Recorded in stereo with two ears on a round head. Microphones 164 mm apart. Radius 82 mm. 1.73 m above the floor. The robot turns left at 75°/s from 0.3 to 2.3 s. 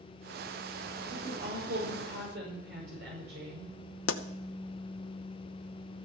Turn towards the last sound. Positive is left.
turn(degrees=80)